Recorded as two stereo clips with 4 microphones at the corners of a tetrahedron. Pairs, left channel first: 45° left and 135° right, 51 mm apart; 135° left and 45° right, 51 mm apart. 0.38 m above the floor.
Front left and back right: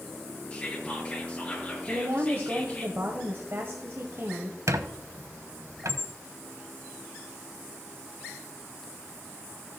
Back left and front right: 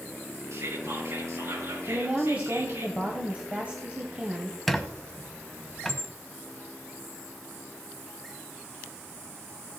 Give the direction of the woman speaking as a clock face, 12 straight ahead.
4 o'clock.